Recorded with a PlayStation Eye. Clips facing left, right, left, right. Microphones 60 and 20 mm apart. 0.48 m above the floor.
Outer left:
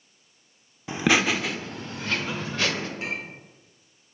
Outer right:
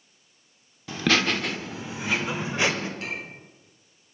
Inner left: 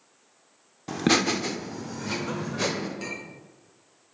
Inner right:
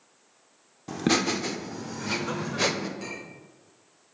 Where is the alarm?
No alarm in this recording.